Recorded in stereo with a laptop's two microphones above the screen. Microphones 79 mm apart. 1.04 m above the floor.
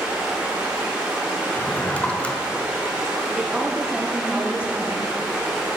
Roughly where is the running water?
Centre.